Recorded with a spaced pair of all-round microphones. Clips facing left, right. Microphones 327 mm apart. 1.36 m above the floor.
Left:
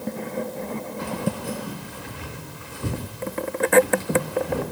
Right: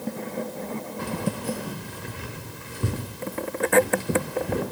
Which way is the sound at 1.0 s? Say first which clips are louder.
Left 1 dB; 45° right (ahead or behind).